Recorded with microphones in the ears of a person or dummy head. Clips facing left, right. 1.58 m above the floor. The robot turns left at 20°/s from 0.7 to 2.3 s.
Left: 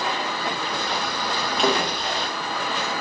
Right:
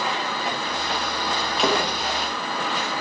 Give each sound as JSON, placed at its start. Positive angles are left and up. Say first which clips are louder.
{"t": 1.6, "sound": "a splash", "louder": "even", "side_deg": -5, "distance_m": 1.3}